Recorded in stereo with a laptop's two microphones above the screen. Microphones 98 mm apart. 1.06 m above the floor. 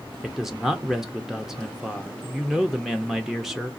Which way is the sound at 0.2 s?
5° right (ahead or behind).